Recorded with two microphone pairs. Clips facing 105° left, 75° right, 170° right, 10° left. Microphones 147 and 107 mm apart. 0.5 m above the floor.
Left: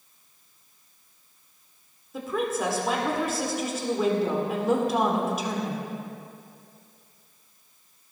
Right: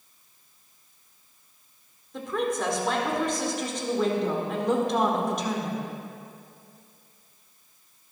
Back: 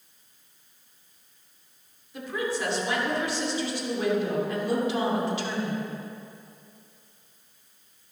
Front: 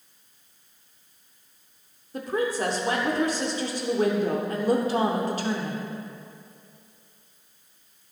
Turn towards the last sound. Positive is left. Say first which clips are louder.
# even, front 4 dB
turn(degrees=25)